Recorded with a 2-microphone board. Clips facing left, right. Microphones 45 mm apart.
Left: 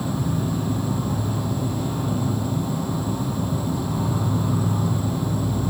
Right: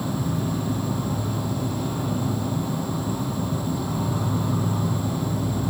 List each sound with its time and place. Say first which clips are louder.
0.0 s an insect: left 1 dB; centre (ahead or behind), 0.8 m